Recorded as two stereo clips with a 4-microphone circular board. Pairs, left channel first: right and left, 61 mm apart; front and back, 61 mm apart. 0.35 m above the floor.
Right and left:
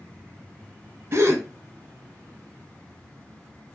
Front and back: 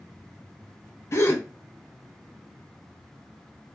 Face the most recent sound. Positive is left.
turn(degrees=45)